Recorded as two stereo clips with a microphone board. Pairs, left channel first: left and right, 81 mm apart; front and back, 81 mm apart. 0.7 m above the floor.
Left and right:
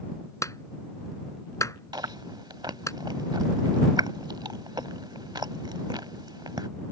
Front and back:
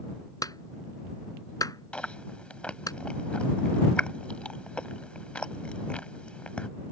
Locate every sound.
0.4 s a clap: 40° left
1.9 s chewing: 75° right